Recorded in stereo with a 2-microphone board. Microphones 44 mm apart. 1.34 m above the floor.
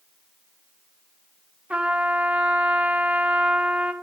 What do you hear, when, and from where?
1.7 s a trumpet: 30° right (ahead or behind), 0.7 m